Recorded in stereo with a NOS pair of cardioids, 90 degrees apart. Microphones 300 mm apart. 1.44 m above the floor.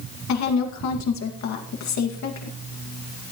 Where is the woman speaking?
70° left, 2 m.